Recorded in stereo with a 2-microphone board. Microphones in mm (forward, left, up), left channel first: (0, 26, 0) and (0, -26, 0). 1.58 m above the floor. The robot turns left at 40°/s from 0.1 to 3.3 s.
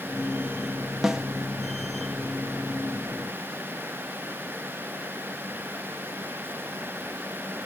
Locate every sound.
1.0 s a snare drum: 10° right (ahead or behind), 0.6 m; by 1.2 s 15° right (ahead or behind), 0.6 m